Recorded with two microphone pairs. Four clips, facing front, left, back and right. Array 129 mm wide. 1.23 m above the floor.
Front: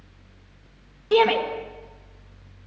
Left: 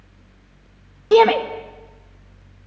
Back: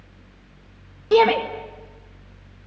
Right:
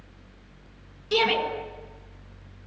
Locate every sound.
1.1 s a shout: 105° left, 1.9 m